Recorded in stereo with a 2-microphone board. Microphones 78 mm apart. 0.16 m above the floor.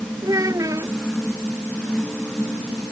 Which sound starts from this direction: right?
A child speaking, at 0.2 s.